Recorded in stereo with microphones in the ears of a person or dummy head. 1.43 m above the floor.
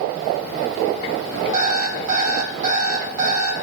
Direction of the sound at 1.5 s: 45° right (ahead or behind).